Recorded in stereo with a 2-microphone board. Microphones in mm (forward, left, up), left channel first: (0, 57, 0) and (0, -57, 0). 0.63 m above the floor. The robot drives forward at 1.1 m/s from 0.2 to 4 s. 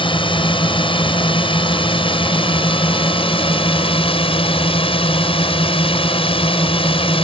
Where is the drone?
45° left (ahead or behind); by 7.2 s 50° left (ahead or behind).